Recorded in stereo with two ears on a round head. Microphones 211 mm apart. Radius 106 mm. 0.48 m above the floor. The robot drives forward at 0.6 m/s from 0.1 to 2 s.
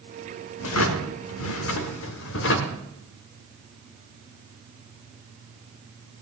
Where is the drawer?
60° left (ahead or behind), 1.2 m; by 2.8 s 55° left (ahead or behind), 1.3 m.